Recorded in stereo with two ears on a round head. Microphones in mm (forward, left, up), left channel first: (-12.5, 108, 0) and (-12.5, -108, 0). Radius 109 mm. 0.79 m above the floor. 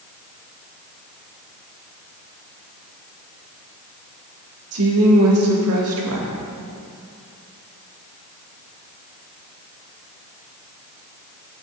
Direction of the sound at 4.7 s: 65° right (ahead or behind).